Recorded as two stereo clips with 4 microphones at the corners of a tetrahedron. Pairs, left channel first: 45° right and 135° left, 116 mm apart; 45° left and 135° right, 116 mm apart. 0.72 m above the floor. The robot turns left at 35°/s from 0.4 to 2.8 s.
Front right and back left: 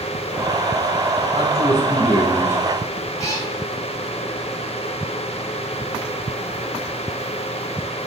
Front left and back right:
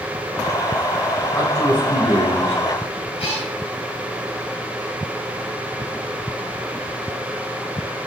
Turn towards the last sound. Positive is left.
turn(degrees=15)